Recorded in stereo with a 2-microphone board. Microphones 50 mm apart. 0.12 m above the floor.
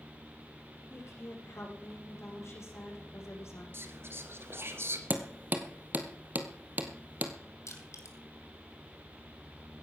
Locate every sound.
0.9 s a woman speaking: 65° left (ahead or behind), 7.5 m
3.7 s whispering: 50° right (ahead or behind), 2.5 m
5.1 s hammering: 35° right (ahead or behind), 1.7 m
7.7 s crushing: 70° left (ahead or behind), 3 m